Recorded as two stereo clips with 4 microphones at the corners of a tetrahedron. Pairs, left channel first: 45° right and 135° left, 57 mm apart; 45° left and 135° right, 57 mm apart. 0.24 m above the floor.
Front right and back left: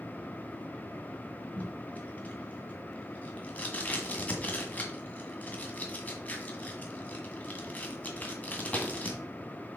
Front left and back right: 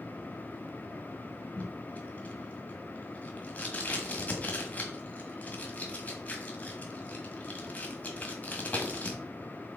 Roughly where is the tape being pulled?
Ahead.